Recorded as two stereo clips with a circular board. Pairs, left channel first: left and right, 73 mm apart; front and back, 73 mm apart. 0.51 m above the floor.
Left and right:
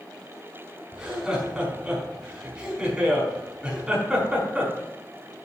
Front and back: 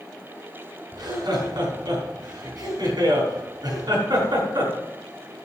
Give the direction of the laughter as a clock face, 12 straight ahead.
6 o'clock.